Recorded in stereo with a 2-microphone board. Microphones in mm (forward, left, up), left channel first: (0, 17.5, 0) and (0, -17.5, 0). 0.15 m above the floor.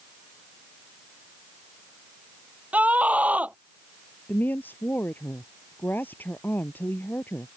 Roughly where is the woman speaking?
Left.